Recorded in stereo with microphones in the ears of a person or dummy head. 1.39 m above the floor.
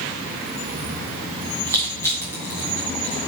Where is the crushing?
15° left (ahead or behind), 2.5 m.